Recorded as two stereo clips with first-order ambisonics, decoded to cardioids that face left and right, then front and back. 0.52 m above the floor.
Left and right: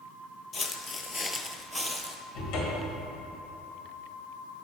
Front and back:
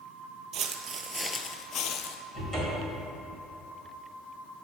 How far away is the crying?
I don't hear crying.